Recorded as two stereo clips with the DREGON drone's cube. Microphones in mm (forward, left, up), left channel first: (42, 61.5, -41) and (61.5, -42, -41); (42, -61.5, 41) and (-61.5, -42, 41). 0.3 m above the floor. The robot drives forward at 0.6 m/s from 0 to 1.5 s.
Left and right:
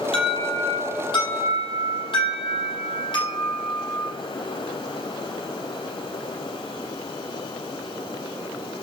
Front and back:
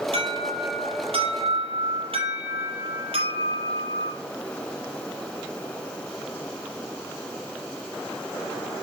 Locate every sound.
0.1 s an alarm: 135° left, 6 m; by 4.1 s 140° left, 6.5 m